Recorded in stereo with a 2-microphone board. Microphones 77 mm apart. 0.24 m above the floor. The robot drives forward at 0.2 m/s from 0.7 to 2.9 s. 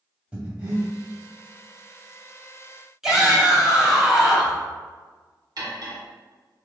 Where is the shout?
5° right (ahead or behind), 1.0 m.